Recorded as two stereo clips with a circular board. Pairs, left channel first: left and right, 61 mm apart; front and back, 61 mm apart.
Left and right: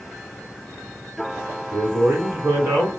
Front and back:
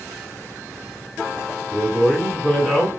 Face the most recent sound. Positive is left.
turn(degrees=-85)